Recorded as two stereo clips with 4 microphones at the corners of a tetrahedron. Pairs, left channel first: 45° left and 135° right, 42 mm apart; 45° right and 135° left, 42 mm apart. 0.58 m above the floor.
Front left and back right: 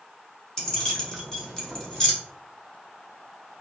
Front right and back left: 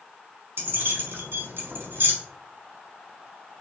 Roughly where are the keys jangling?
Behind left.